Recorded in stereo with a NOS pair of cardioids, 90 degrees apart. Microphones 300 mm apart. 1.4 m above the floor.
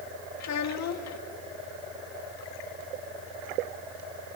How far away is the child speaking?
About 1.7 m.